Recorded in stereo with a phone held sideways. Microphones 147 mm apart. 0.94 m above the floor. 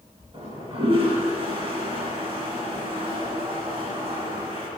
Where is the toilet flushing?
40° right (ahead or behind), 1.5 m.